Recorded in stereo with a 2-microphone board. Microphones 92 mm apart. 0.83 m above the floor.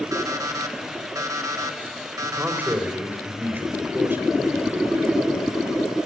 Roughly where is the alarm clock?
Right.